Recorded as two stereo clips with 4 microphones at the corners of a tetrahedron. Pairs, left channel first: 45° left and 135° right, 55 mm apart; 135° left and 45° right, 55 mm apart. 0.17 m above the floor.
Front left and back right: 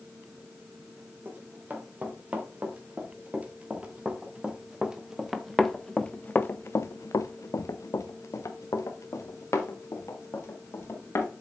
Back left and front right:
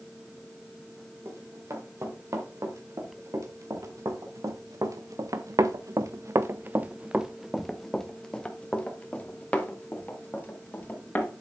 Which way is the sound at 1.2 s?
80° right.